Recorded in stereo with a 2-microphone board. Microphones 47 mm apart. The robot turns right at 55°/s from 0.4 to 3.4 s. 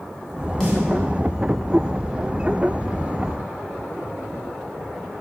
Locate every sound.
0.6 s a snare drum: centre (ahead or behind), 0.8 m; by 0.8 s 5° left (ahead or behind), 0.8 m